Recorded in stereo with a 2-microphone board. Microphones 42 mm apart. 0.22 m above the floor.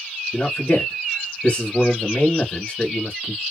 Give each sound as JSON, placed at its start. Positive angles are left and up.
{"t": 0.3, "sound": "a man speaking", "side_deg": 25, "distance_m": 1.0}